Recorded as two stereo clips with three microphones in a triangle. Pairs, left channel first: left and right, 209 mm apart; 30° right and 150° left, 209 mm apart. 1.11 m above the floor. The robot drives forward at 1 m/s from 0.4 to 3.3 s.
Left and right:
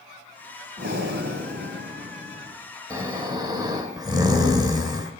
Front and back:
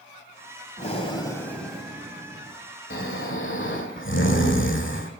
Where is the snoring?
15° right, 2 m; by 5.1 s 20° right, 1.8 m.